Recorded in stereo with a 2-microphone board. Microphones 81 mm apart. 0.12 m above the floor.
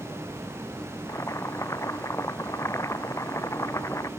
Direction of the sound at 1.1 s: 35° left (ahead or behind).